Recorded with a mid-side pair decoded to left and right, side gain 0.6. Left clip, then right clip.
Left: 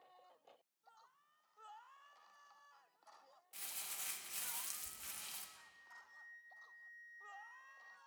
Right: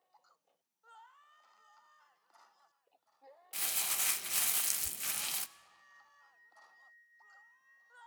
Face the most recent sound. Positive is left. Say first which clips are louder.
# left 2 dB
turn(degrees=45)